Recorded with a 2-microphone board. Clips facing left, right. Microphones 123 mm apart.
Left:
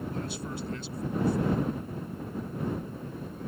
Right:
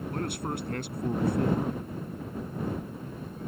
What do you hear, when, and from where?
0.1 s a man speaking: 60° right (ahead or behind)